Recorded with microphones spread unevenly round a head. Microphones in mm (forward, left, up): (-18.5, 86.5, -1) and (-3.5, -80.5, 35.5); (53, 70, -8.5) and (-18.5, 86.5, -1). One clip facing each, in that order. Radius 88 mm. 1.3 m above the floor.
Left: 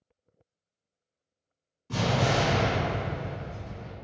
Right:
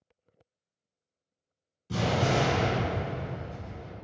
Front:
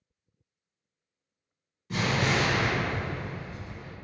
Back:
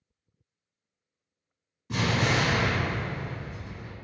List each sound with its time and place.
1.9 s an explosion: 145° right, 1.5 m